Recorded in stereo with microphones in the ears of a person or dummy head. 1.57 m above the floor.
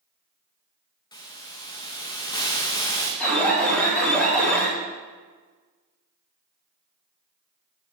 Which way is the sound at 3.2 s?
5° left (ahead or behind).